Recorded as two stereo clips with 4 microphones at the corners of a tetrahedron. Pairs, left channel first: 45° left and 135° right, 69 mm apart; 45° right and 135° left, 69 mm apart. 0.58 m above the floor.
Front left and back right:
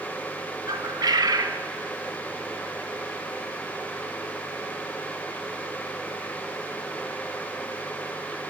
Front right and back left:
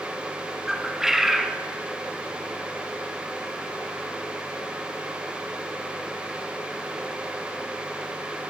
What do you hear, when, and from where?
0.7 s a bird: 140° right, 1.0 m